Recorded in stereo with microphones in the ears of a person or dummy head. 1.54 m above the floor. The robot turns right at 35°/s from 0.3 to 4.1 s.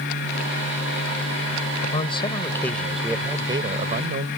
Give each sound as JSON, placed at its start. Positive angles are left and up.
{"t": 1.8, "sound": "a man speaking", "azimuth_deg": 140}